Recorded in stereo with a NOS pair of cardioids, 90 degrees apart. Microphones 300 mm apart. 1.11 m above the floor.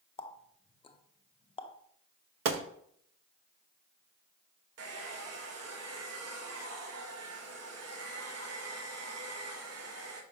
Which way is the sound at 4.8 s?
55° right.